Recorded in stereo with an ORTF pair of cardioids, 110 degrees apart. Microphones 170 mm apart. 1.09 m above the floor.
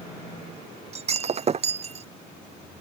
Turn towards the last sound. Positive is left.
turn(degrees=-40)